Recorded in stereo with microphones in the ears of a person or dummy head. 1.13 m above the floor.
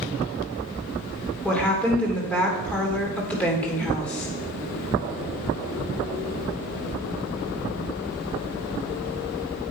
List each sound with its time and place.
1.4 s a woman speaking: 5° left (ahead or behind), 2.5 m